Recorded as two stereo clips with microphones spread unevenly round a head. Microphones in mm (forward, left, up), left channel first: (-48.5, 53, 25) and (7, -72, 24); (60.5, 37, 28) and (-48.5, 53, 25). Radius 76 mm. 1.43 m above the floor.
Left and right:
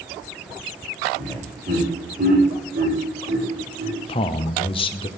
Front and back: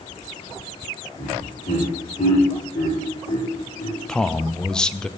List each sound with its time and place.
1.2 s laughter: 25° right, 3.5 m; by 4.0 s 50° right, 3.5 m
4.1 s a man speaking: 75° left, 0.5 m